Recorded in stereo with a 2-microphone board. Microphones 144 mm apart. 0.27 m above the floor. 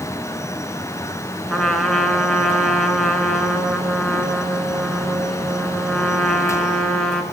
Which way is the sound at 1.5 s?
5° left (ahead or behind).